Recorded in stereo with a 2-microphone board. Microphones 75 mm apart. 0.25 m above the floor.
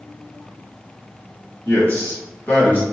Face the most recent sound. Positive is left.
turn(degrees=25)  # may be behind; listen again after turning